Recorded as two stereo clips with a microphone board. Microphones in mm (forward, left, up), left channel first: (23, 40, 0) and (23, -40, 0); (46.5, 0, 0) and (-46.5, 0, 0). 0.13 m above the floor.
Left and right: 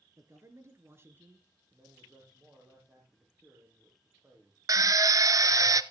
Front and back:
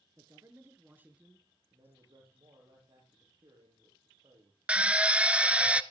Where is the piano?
No piano in this recording.